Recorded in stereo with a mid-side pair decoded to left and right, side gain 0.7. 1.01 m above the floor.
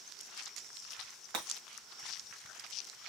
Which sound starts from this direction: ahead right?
Breaking glass, at 1.3 s.